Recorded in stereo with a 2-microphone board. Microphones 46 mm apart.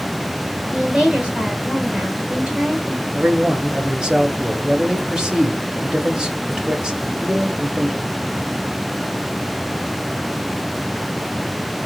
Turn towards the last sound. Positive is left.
turn(degrees=-15)  # may be behind; listen again after turning